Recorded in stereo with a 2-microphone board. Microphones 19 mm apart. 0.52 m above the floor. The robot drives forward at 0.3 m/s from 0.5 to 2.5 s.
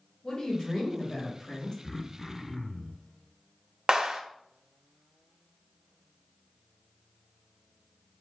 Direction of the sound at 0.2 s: 40° left (ahead or behind).